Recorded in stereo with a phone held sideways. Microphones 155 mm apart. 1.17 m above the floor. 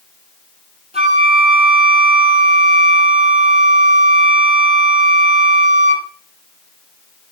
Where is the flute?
45° right (ahead or behind), 5 m.